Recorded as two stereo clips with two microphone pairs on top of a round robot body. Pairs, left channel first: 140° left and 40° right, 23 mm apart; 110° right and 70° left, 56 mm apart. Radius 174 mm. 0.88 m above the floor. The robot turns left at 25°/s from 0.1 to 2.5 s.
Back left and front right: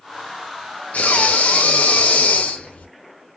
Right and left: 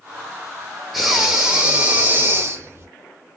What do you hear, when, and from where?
0.9 s breathing: 160° left, 0.6 m; by 2.9 s 120° left, 0.6 m